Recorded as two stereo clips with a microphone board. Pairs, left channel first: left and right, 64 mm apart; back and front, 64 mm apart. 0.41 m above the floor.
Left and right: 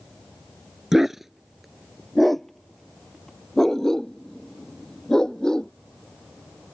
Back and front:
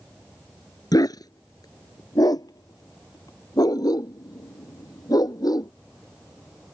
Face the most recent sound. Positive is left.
turn(degrees=170)